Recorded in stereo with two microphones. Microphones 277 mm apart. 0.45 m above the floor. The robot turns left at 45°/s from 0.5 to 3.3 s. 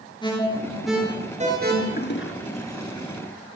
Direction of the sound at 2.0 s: 35° left (ahead or behind).